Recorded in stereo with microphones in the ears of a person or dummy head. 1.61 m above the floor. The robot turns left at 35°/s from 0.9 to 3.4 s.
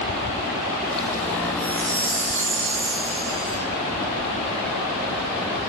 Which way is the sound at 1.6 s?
10° left.